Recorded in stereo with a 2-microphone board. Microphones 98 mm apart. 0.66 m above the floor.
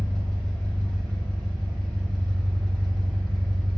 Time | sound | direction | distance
0.0 | an engine running | 5° left (ahead or behind) | 1.2 m